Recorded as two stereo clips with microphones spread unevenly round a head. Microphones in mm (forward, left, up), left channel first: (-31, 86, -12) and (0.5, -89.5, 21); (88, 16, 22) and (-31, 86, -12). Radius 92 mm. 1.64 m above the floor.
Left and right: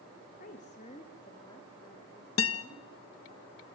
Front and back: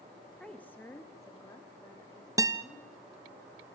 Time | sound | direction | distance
0.4 | a woman speaking | 50° left | 1.8 m
2.4 | a guitar | 80° left | 1.5 m